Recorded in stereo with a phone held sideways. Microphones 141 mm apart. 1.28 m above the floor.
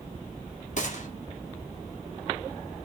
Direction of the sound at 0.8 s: 55° left (ahead or behind).